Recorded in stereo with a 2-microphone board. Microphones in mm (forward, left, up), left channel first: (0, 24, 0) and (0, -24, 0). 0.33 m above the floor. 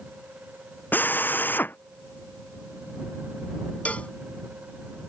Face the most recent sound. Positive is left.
turn(degrees=25)  # may be behind; listen again after turning